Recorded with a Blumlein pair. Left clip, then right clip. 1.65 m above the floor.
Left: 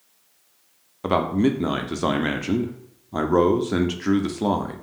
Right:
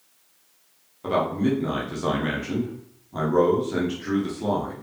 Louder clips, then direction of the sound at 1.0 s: Left 2 dB; 65° left.